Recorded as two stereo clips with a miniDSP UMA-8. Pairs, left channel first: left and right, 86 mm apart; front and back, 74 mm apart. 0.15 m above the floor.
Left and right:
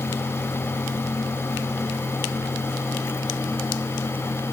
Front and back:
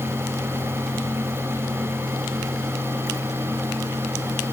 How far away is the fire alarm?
I don't hear a fire alarm.